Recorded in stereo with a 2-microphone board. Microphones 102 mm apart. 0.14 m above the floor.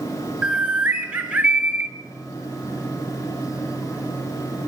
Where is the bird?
15° right (ahead or behind), 1.3 m.